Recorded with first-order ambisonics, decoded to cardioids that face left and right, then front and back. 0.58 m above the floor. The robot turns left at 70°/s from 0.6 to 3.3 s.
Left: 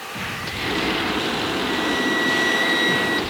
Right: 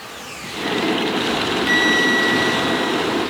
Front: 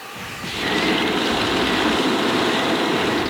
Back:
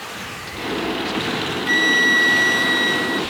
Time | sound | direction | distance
1.7 | a flute | 130° right | ?